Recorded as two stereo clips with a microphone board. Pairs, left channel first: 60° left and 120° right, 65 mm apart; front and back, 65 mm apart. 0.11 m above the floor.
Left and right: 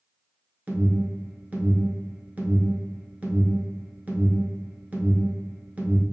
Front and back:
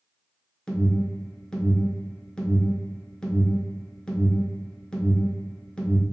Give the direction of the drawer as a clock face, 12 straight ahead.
No drawer in this recording.